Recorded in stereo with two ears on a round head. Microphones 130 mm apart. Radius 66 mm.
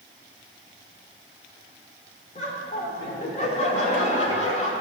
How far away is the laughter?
About 1.8 m.